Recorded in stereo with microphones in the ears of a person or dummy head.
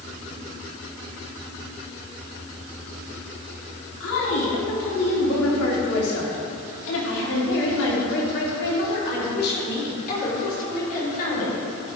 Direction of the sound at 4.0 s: 70° left (ahead or behind).